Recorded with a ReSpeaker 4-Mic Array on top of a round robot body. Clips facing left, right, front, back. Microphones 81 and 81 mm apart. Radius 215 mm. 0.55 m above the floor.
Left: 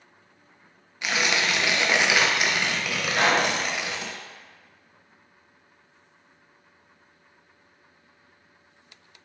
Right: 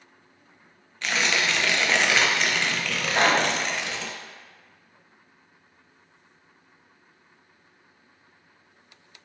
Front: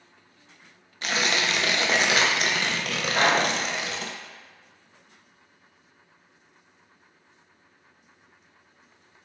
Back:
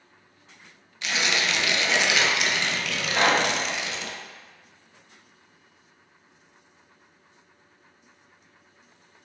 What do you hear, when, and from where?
1.0 s tearing paper: 15° left, 0.7 m
3.1 s a pop: 75° right, 1.6 m